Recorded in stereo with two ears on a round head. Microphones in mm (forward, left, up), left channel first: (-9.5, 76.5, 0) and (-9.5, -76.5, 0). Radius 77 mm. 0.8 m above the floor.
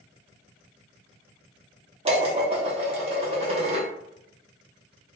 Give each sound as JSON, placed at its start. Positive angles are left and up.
{"t": 2.0, "sound": "dishes clattering", "side_deg": -35, "distance_m": 0.8}